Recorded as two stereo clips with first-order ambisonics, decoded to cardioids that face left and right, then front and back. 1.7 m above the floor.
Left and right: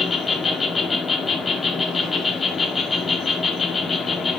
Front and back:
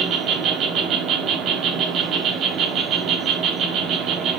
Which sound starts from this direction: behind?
An insect, at 0.0 s.